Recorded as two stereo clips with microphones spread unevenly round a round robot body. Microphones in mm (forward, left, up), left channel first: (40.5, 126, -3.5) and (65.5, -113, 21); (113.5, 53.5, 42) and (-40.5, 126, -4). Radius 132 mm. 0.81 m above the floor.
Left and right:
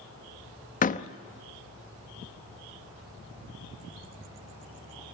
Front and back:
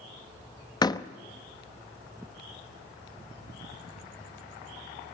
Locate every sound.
0.8 s a door slam: 50° left, 0.9 m